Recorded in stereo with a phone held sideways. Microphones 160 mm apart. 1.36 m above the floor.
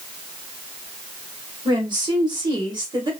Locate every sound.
1.6 s a woman speaking: 30° right (ahead or behind), 1.4 m